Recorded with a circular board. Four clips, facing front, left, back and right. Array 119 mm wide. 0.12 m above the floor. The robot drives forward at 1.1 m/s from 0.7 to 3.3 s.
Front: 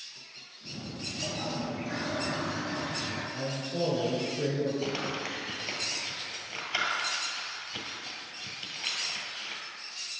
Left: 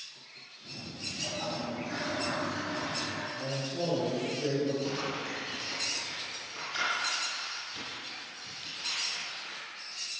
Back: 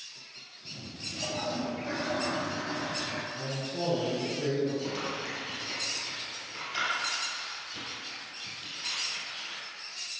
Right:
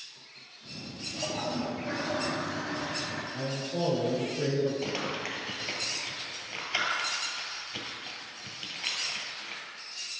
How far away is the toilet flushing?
About 1.3 m.